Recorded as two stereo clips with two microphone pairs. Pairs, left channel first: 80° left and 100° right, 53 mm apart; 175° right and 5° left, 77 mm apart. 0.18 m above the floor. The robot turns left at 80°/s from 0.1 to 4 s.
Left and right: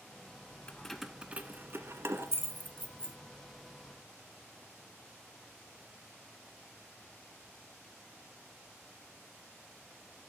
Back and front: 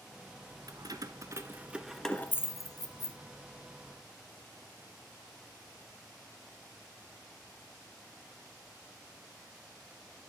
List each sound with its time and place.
0.7 s keys jangling: 15° left, 1.3 m; by 3.2 s straight behind, 1.3 m